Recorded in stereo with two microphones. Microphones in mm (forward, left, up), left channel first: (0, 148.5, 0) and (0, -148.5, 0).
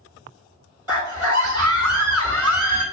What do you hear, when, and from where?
0.9 s a scream: 55° right (ahead or behind), 2 m